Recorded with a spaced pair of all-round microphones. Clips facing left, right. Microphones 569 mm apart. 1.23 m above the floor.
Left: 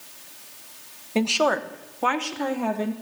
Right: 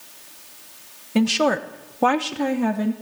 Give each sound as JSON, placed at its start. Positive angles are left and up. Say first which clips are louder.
{"t": 1.1, "sound": "a woman speaking", "louder": "right 4 dB", "side_deg": -35, "distance_m": 1.2}